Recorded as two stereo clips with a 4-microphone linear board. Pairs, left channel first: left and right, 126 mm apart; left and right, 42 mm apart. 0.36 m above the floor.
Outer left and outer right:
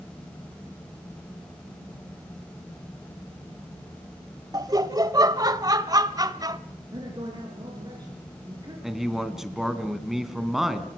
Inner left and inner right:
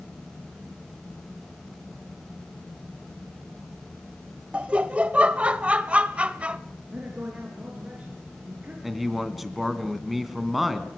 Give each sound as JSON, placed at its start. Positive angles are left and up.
{"t": 4.5, "sound": "laughter", "side_deg": -30, "distance_m": 1.5}
{"t": 6.9, "sound": "a man speaking", "side_deg": -35, "distance_m": 5.0}
{"t": 8.8, "sound": "a man speaking", "side_deg": -5, "distance_m": 3.0}